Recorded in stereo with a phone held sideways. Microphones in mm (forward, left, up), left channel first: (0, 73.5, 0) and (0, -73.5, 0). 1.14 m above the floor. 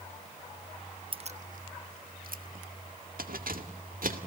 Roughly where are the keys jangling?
Right.